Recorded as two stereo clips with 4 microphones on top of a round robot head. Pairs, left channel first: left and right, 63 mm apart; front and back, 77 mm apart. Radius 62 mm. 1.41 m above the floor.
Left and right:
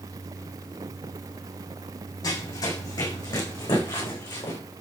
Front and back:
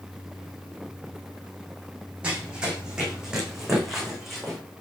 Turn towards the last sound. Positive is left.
turn(degrees=90)